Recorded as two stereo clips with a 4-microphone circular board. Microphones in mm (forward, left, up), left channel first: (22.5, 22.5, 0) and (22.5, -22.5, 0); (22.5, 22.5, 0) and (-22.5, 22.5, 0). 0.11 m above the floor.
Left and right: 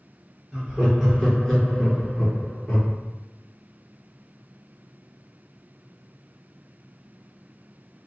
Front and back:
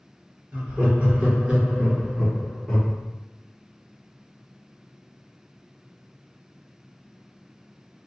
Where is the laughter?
160° right, 1.7 m; by 3.0 s 75° left, 1.3 m.